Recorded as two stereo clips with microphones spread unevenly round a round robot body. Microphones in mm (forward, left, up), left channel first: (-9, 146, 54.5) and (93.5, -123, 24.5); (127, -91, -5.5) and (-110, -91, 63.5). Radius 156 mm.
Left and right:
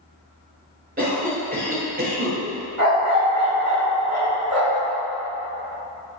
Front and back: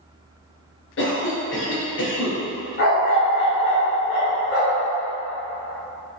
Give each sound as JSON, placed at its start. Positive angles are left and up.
{"t": 1.0, "sound": "a cough", "azimuth_deg": -15, "distance_m": 1.8}
{"t": 2.8, "sound": "a dog barking", "azimuth_deg": -50, "distance_m": 1.6}